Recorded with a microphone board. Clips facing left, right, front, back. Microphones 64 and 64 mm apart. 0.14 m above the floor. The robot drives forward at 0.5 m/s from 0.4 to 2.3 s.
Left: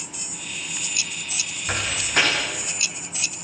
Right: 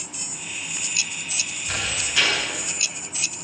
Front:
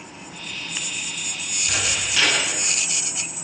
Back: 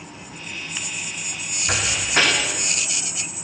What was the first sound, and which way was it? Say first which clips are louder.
A door slam: left 3 dB, back 3 dB; 130° left.